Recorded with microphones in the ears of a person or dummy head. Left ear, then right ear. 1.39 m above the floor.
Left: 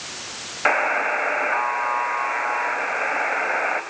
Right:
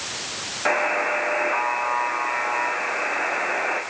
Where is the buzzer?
75° left (ahead or behind), 3.5 m.